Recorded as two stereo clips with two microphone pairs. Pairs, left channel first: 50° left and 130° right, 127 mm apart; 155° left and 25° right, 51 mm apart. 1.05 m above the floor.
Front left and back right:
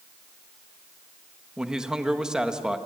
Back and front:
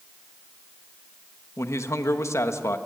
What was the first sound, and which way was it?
A man speaking, 145° left.